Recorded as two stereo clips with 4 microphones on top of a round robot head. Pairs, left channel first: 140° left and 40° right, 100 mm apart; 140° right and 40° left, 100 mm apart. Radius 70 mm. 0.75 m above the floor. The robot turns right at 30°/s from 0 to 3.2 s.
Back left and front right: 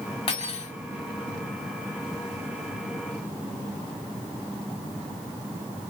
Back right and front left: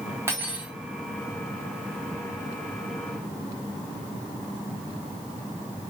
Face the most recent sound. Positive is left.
turn(degrees=-165)